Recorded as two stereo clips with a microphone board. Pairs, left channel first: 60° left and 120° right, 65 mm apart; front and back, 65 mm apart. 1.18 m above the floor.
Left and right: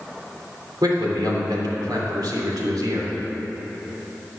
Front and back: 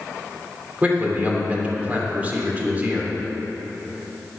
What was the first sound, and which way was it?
A man speaking, 110° right.